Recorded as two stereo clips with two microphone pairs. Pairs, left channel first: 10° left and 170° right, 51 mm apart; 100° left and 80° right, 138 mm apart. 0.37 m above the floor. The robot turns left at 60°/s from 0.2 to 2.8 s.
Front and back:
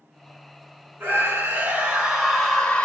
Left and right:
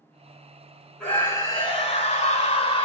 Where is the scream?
Straight behind, 2 m; by 2.9 s 70° left, 2 m.